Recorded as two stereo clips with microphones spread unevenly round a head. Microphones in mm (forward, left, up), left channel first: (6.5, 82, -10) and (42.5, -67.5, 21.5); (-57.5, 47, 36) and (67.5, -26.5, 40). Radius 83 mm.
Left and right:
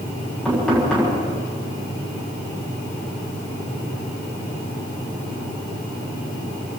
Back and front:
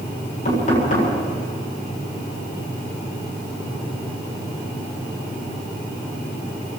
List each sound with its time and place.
0.5 s knocking: 170° right, 8 m